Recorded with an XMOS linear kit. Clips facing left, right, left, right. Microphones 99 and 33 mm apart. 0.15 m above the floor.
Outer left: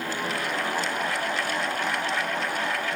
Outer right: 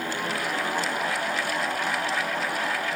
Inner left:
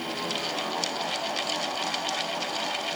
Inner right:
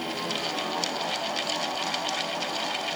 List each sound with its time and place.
Only background noise.